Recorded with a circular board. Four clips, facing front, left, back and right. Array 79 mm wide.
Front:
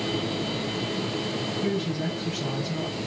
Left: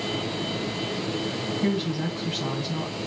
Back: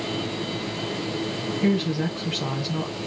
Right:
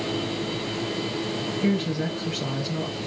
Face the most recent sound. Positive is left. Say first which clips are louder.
# right 2 dB, back 6 dB
turn(degrees=160)